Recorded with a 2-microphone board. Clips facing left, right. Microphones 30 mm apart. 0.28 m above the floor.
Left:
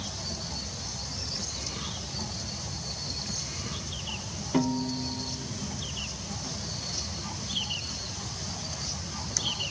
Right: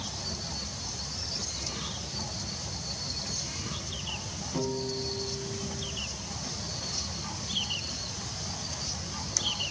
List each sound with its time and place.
4.5 s a piano: 65° left (ahead or behind), 0.6 m